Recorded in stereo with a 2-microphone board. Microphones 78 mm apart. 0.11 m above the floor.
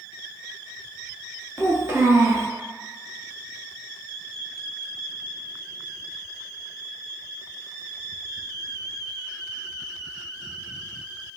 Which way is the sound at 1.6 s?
30° right (ahead or behind).